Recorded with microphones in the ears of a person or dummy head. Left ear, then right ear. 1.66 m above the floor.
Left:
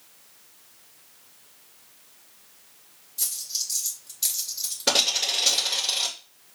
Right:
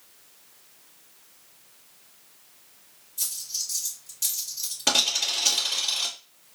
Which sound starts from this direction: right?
A dropped coin, at 3.2 s.